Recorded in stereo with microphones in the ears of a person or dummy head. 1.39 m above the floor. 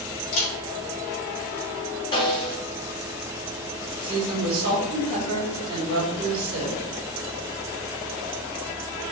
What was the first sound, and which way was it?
A camera shutter, 70° left (ahead or behind).